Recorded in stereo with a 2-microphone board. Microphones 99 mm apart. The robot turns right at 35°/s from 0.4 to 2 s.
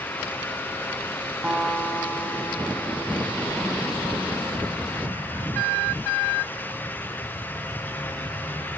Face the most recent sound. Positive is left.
turn(degrees=10)  # may be behind; listen again after turning